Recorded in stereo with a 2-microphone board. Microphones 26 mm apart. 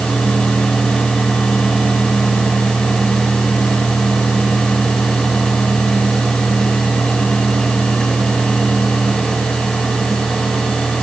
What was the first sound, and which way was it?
Only background noise.